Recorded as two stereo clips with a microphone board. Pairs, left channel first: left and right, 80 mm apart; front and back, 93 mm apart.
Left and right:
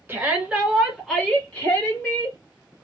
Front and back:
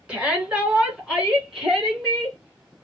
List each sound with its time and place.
0.1 s a shout: 115° right, 1.5 m; by 2.4 s 95° left, 1.7 m